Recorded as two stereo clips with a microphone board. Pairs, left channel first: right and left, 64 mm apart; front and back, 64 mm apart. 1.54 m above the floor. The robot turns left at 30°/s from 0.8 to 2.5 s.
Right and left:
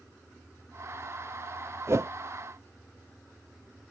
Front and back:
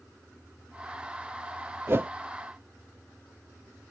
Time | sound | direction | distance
1.9 | a whoosh | 135° left | ?